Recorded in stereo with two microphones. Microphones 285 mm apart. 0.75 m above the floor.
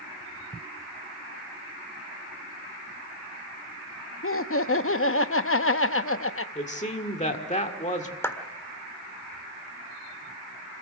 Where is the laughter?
50° left (ahead or behind), 0.7 m.